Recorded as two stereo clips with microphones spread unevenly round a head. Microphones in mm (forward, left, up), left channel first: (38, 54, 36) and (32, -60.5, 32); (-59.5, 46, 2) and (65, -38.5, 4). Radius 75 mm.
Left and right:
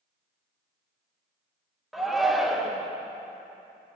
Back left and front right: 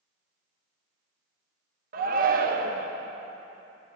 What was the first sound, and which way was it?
A shout, 5° right.